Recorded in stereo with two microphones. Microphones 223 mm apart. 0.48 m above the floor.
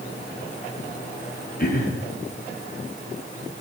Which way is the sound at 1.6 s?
40° left (ahead or behind).